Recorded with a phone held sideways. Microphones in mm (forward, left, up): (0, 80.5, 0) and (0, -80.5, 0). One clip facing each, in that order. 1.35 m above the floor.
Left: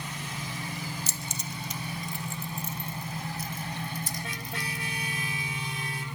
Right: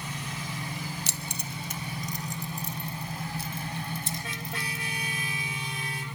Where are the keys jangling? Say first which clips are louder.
Even; 70° right (ahead or behind), 0.7 m; by 4.8 s 25° right (ahead or behind), 3.5 m.